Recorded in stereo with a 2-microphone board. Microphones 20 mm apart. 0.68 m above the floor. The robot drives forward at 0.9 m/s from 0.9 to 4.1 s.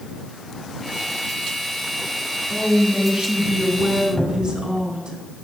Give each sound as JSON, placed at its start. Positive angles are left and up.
{"t": 2.5, "sound": "a woman speaking", "side_deg": -50, "distance_m": 8.5}
{"t": 4.2, "sound": "a cupboard door", "side_deg": 20, "distance_m": 3.5}